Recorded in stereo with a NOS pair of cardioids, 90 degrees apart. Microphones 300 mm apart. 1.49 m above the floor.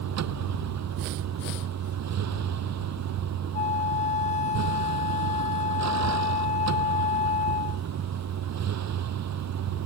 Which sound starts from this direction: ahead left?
A flute, at 3.5 s.